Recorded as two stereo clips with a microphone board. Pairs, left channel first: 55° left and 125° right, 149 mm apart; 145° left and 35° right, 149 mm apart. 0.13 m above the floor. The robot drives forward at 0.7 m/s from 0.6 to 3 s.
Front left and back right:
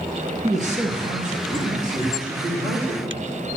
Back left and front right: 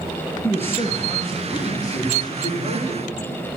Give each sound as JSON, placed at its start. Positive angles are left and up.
{"t": 0.4, "sound": "a man speaking", "azimuth_deg": -140, "distance_m": 2.5}